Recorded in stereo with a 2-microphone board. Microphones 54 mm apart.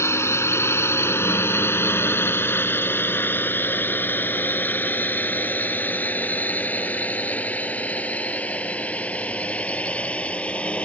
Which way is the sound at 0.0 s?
55° left (ahead or behind).